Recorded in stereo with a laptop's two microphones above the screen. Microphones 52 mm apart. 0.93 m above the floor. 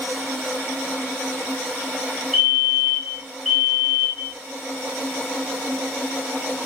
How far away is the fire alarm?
About 1.6 m.